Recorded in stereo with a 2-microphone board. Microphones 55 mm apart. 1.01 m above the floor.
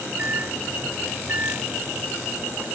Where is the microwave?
40° right (ahead or behind).